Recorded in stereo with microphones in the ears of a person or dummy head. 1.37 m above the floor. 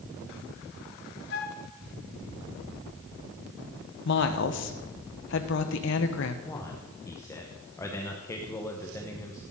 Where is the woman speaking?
60° left (ahead or behind), 1.1 m.